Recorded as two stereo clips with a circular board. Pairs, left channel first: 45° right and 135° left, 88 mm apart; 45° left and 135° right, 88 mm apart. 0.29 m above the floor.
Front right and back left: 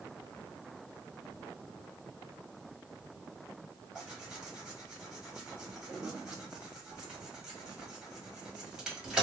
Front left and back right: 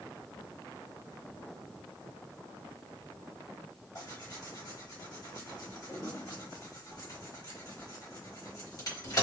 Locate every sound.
4.0 s tearing paper: 55° left, 1.5 m